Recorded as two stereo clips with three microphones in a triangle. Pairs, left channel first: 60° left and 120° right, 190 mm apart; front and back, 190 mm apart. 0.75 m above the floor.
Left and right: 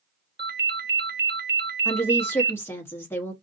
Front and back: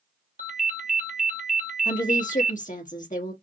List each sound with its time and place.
0.4 s a ringtone: 135° right, 0.7 m
1.9 s a woman speaking: 10° right, 1.1 m